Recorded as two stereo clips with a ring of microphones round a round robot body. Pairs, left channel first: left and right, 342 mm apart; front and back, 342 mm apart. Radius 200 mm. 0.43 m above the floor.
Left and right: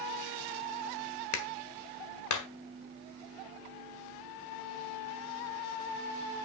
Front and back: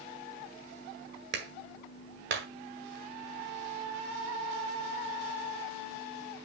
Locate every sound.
1.3 s a clap: 120° left, 1.7 m